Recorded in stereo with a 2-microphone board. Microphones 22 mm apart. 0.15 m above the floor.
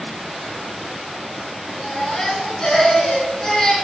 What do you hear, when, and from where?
1.8 s a baby crying: 25° left (ahead or behind), 1.3 m